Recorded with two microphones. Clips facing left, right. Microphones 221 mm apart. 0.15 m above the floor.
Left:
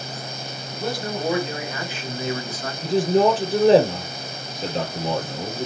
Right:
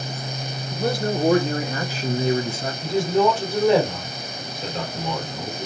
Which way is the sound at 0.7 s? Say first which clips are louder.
Right 5 dB; 55° right (ahead or behind).